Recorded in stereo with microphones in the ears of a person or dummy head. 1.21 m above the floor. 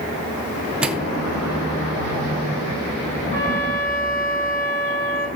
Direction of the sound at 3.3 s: 45° left (ahead or behind).